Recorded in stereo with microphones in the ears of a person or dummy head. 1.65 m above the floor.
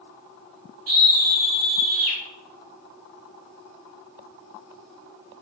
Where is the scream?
50° right (ahead or behind), 2.5 m.